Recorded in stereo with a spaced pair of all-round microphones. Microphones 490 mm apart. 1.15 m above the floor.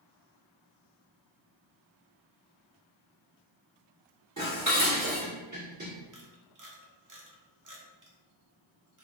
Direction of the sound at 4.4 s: 35° right (ahead or behind).